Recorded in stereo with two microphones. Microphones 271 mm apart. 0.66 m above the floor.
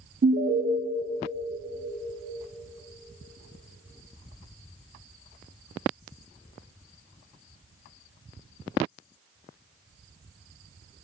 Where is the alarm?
40° right (ahead or behind), 0.5 m.